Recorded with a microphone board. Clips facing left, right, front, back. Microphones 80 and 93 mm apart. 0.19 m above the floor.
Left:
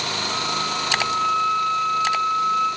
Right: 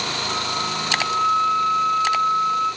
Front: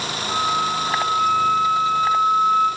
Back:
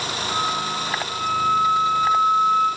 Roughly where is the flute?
Ahead right.